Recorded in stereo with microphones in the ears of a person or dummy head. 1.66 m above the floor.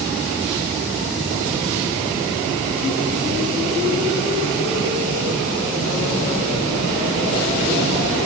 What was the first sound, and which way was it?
Only background noise.